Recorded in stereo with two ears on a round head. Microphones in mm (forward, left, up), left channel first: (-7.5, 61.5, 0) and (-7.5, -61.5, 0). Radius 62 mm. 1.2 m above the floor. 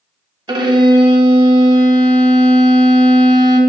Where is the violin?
35° right (ahead or behind), 1.1 m.